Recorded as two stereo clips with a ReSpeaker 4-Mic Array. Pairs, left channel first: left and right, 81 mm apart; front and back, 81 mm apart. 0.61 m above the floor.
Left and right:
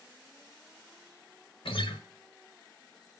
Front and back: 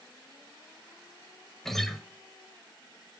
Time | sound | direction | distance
1.6 | a guitar | 85° left | 1.1 m